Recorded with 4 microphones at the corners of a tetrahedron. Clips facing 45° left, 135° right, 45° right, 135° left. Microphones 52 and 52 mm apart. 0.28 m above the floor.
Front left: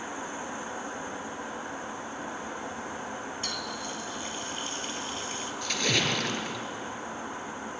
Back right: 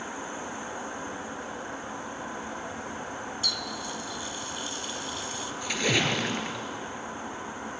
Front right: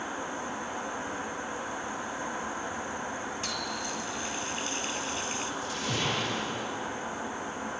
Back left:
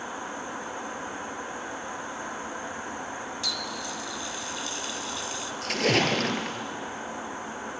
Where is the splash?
150° left, 1.9 m.